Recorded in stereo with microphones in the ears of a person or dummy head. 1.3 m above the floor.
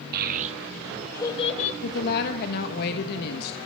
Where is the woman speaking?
55° left (ahead or behind), 1.3 m.